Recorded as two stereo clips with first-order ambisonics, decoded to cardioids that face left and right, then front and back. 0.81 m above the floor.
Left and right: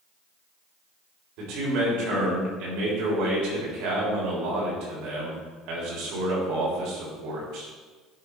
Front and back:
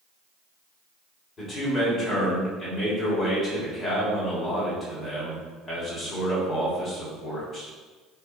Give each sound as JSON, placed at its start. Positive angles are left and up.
{"t": 1.4, "sound": "a man speaking", "azimuth_deg": -70, "distance_m": 3.5}